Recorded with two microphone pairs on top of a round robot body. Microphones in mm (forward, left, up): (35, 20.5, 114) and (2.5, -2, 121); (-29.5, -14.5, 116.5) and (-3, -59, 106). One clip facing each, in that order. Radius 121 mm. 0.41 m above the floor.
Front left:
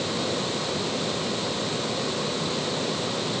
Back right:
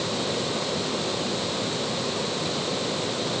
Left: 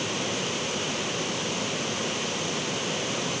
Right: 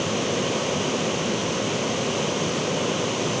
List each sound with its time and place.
Only background noise.